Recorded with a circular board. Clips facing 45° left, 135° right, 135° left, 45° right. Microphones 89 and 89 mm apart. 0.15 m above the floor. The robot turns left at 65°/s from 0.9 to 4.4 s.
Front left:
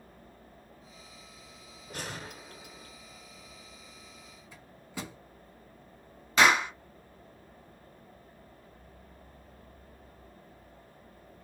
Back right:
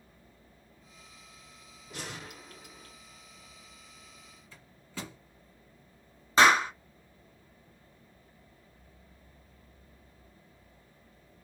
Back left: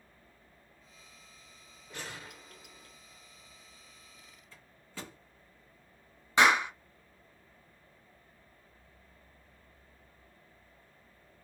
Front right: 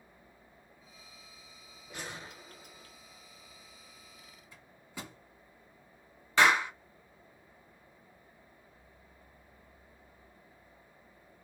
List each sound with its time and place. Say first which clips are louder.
1.9 s a gunshot: front left 2 dB, front right 1 dB; 30° left, 0.9 m; by 3.0 s 40° right, 0.9 m
4.5 s a microwave: front left 2 dB, front right 1 dB; 5° right, 1.1 m
6.4 s a clap: back right 2 dB, back left 1 dB; 165° right, 1.1 m